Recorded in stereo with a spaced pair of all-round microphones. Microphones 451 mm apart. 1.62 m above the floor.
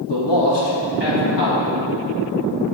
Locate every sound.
0.1 s a man speaking: 65° left (ahead or behind), 2.5 m